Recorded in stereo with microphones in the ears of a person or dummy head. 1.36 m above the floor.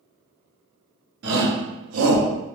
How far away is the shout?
About 1.6 m.